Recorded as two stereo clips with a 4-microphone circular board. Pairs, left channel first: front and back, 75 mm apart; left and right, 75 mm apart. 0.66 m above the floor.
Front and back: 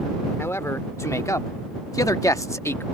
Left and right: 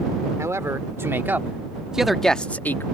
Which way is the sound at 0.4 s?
50° right.